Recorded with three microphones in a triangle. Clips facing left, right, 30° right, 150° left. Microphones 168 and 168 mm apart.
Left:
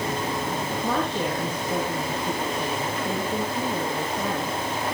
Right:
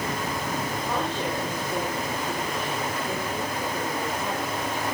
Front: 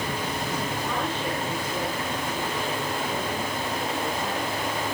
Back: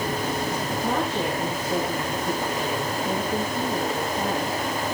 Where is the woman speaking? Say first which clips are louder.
Left 3 dB, back 4 dB; 105° left, 10 m.